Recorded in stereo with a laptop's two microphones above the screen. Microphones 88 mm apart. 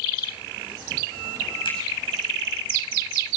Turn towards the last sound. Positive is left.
turn(degrees=65)  # may be behind; listen again after turning